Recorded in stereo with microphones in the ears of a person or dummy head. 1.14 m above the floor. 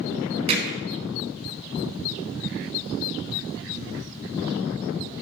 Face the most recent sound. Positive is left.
turn(degrees=-40)  # may be behind; listen again after turning